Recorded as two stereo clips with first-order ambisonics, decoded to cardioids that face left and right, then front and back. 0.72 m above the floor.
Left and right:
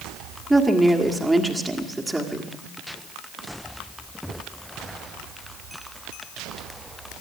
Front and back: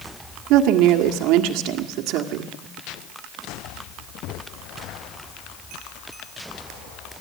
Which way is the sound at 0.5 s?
175° right.